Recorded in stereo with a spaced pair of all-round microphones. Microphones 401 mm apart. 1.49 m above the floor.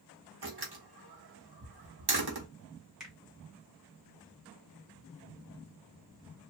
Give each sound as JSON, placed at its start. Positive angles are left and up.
{"t": 0.4, "sound": "a door slam", "side_deg": -65, "distance_m": 1.2}
{"t": 3.0, "sound": "a finger snap", "side_deg": 0, "distance_m": 1.7}